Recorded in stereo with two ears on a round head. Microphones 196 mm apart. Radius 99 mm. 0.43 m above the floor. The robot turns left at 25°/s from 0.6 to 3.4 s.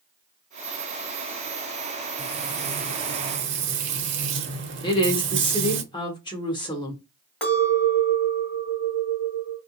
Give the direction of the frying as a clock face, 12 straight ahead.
2 o'clock.